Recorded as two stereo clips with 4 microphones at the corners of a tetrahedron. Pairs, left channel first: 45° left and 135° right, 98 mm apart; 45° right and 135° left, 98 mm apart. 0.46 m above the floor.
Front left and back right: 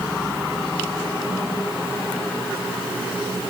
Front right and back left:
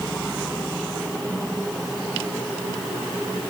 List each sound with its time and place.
Only background noise.